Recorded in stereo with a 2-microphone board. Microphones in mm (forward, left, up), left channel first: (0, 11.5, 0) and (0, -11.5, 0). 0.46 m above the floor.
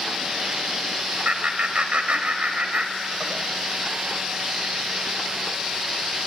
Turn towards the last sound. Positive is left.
turn(degrees=-55)  # may be behind; listen again after turning